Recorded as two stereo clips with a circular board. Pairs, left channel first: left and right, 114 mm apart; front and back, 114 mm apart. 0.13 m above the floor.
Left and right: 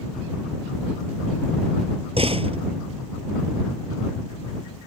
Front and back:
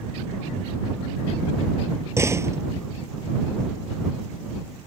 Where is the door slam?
115° right.